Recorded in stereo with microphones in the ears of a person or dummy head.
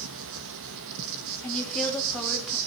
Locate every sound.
0.0 s an insect: 75° right (ahead or behind), 1.5 m
1.4 s a woman speaking: centre (ahead or behind), 5 m